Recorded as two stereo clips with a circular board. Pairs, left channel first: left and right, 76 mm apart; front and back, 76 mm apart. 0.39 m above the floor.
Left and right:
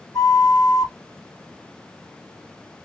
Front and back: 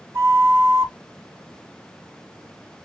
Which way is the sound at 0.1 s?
125° left.